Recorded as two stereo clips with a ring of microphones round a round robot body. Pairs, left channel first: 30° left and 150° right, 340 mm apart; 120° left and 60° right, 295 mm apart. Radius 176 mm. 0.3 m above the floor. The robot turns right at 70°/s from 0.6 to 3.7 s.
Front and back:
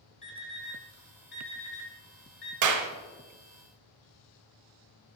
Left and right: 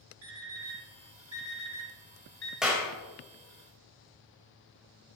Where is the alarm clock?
45° right, 2.5 m; by 2.5 s 90° left, 2.5 m.